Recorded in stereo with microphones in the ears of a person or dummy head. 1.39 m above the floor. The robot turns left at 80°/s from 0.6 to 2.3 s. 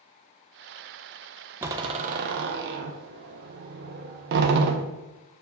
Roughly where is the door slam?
Centre.